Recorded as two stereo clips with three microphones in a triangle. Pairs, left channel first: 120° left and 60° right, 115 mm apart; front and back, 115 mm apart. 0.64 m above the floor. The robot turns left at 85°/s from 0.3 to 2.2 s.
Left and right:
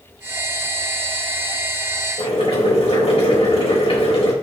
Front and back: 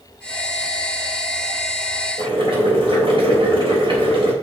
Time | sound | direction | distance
2.2 | boiling | 150° left | 3.5 m